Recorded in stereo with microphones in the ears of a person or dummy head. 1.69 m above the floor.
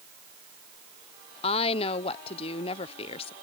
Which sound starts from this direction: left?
A woman speaking, at 1.4 s.